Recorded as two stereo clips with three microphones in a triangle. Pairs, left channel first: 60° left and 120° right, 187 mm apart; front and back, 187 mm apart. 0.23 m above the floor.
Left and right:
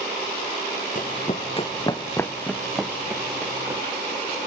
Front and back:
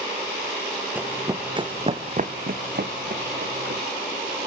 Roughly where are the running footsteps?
Left.